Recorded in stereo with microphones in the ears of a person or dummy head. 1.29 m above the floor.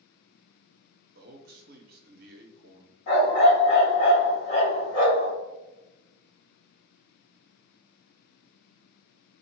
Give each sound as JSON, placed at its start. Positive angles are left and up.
{"t": 1.1, "sound": "a man speaking", "side_deg": -45, "distance_m": 0.6}
{"t": 3.1, "sound": "a dog barking", "side_deg": 45, "distance_m": 1.6}